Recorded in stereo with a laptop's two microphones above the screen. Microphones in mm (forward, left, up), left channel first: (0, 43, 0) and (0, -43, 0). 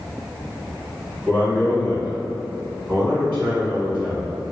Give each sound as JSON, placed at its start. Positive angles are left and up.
{"t": 1.3, "sound": "a man speaking", "side_deg": -15, "distance_m": 1.6}